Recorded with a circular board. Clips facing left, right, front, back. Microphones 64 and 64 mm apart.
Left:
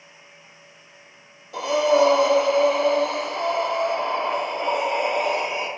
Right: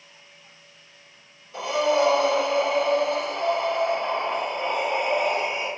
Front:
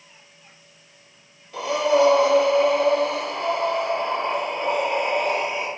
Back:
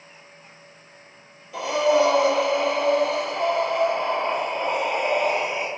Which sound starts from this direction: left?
Breathing, at 1.5 s.